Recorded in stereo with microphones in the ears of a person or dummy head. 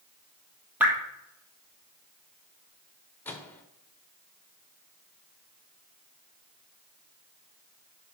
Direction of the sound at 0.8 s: 10° right (ahead or behind).